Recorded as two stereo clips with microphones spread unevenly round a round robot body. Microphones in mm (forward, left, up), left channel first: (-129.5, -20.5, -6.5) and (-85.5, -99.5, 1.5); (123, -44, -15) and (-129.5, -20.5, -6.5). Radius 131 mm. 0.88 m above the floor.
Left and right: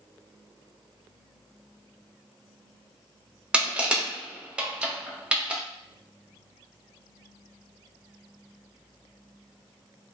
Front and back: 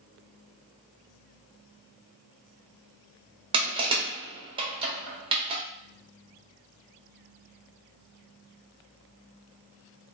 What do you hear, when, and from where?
3.5 s crushing: 135° right, 0.6 m